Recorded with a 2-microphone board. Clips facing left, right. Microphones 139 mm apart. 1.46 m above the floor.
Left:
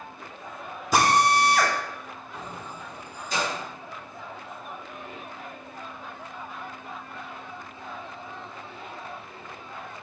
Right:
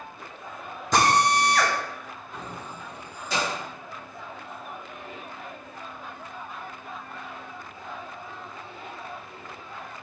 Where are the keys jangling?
75° right (ahead or behind), 1.7 m.